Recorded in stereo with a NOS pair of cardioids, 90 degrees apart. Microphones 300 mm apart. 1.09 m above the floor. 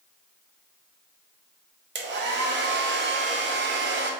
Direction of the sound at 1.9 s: 40° right.